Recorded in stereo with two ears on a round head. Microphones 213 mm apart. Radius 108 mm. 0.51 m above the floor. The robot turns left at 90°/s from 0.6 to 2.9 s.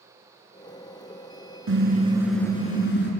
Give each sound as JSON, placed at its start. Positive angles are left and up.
{"t": 1.7, "sound": "a car horn", "azimuth_deg": -120, "distance_m": 4.0}